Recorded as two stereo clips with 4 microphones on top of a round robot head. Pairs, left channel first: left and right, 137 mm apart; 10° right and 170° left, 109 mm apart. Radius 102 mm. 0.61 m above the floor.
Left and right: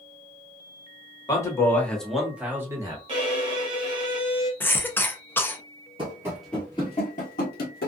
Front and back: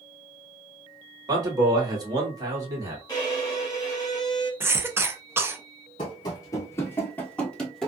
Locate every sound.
1.3 s a man speaking: 135° left, 1.5 m; by 3.0 s 140° right, 1.5 m
3.1 s a violin: 55° right, 1.3 m
4.6 s a cough: 140° left, 0.7 m
6.0 s running footsteps: 45° right, 0.7 m; by 7.9 s 75° left, 1.0 m